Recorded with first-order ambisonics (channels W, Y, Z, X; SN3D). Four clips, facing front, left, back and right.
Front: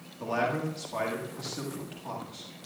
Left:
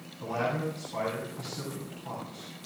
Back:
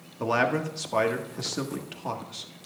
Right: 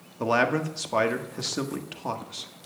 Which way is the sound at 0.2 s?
120° right.